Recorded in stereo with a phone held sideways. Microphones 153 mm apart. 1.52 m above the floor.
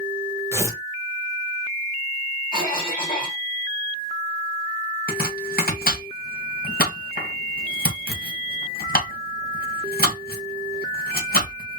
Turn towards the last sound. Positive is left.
turn(degrees=75)  # may be behind; listen again after turning